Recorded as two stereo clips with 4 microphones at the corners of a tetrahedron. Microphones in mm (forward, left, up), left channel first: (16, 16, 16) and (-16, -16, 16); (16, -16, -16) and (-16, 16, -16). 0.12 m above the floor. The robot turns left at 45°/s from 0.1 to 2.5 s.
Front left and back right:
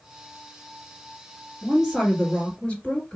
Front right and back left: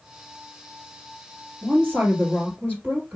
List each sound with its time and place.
1.6 s a woman speaking: 145° left, 2.5 m; by 3.2 s 105° left, 2.5 m